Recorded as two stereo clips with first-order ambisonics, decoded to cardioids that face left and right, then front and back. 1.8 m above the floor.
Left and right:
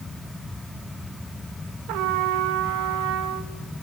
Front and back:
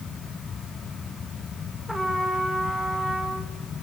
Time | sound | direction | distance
1.9 | a trumpet | 90° right | 2 m